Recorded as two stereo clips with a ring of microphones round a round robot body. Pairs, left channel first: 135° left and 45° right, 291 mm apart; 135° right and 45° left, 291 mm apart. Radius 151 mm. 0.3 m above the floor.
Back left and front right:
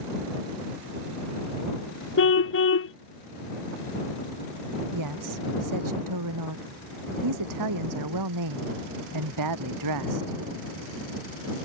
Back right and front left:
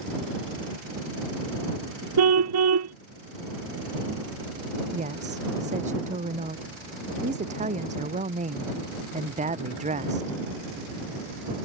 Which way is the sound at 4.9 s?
25° right.